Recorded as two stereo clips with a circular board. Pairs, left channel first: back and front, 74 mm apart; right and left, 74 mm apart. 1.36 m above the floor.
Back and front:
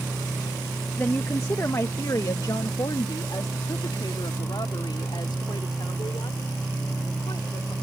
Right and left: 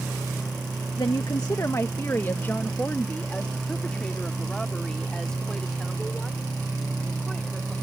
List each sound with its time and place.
1.0 s a woman speaking: 115° right; by 7.7 s straight behind